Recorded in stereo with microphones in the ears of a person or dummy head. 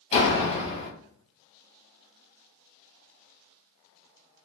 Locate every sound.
0.1 s a door slam: 40° left (ahead or behind), 1.8 m